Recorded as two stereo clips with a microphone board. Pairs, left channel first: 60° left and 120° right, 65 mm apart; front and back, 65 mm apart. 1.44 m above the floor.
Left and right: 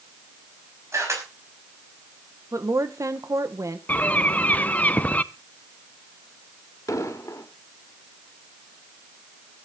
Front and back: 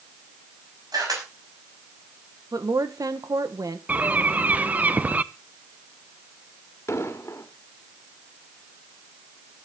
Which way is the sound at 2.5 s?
155° right.